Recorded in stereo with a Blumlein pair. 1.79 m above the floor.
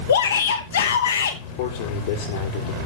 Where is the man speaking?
50° left, 5.5 m.